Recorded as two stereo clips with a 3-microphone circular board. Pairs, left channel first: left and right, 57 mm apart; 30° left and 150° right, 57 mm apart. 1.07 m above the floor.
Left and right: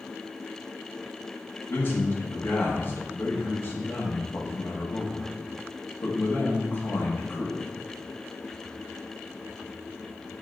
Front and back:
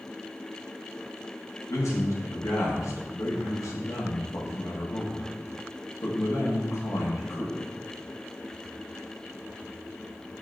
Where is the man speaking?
40° left, 1.0 m.